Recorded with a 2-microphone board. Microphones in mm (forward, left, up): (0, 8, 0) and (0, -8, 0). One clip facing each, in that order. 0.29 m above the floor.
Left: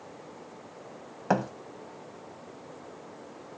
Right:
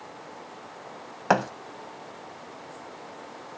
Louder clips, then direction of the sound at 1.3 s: Right 4 dB; 40° right (ahead or behind).